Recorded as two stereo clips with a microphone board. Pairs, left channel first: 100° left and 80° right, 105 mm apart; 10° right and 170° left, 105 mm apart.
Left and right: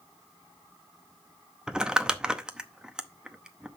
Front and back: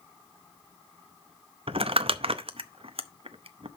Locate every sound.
1.7 s crumpling: 160° right, 0.6 m